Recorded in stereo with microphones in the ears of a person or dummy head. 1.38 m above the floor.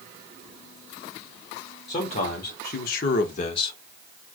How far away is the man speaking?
About 1.0 m.